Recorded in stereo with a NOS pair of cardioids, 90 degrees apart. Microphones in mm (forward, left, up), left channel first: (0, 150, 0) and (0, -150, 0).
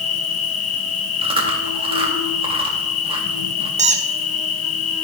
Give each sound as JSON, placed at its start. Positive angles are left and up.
{"t": 0.0, "sound": "an insect", "azimuth_deg": 55, "distance_m": 1.2}
{"t": 1.2, "sound": "chewing", "azimuth_deg": -20, "distance_m": 2.0}
{"t": 3.8, "sound": "a squeak", "azimuth_deg": -25, "distance_m": 1.1}